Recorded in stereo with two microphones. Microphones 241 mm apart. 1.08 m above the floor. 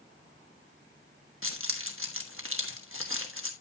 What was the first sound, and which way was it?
Keys jangling, 60° right (ahead or behind).